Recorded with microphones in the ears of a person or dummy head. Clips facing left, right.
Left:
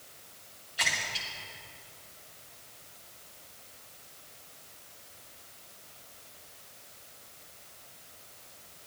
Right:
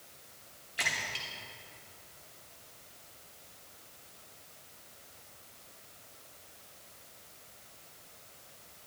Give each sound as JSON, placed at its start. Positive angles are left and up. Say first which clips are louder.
{"t": 0.8, "sound": "a splash", "louder": "left 2 dB", "side_deg": -30, "distance_m": 1.5}